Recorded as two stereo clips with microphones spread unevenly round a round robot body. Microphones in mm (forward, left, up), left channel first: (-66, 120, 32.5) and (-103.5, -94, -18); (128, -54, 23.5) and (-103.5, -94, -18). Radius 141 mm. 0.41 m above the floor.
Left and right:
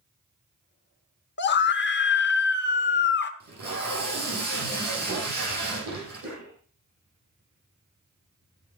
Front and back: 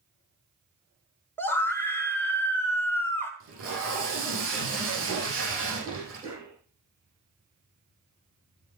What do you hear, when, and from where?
1.4 s a scream: 100° left, 1.1 m
3.4 s tape being pulled: 140° right, 7 m
5.8 s a cough: 105° right, 6 m